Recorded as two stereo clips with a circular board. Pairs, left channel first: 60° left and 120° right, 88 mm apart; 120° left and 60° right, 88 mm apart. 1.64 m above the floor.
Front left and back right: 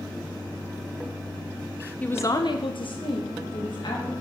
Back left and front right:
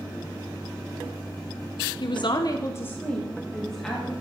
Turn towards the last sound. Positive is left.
turn(degrees=30)